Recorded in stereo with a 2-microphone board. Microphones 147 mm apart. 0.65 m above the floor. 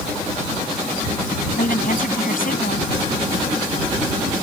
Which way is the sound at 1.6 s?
75° left (ahead or behind).